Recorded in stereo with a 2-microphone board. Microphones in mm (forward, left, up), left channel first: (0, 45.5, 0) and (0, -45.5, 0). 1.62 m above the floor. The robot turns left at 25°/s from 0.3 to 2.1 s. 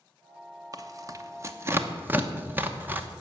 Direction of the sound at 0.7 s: 45° right (ahead or behind).